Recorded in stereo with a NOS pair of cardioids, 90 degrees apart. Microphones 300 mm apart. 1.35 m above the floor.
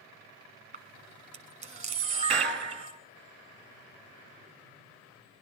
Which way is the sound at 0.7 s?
25° right.